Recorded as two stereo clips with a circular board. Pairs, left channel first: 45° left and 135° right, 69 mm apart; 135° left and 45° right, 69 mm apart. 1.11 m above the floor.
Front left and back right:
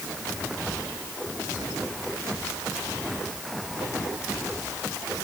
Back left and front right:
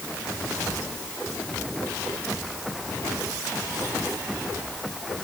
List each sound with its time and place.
Only background noise.